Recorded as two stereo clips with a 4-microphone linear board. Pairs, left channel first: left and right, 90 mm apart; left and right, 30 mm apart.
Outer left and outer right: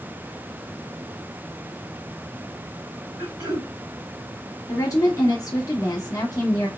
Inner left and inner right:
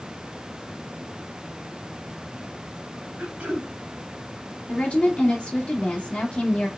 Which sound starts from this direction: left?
A woman speaking, at 4.7 s.